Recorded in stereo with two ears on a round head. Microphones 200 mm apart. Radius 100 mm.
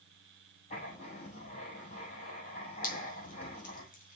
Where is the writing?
35° left (ahead or behind), 7 m.